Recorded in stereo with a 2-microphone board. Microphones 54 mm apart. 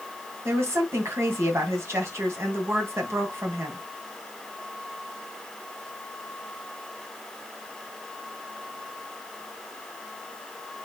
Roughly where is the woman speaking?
Right.